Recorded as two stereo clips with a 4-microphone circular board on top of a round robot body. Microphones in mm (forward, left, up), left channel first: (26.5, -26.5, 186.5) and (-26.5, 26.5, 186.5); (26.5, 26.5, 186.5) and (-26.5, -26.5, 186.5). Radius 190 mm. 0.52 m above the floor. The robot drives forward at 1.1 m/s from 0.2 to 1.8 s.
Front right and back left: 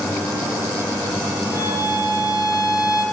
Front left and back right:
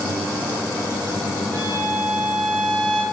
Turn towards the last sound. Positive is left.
turn(degrees=-90)